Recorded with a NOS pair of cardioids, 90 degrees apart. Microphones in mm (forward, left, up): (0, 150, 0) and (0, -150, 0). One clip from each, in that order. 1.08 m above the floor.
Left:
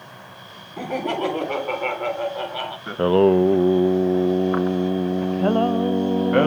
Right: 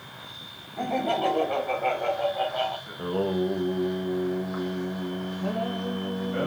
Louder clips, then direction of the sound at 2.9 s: Left 12 dB; 65° left.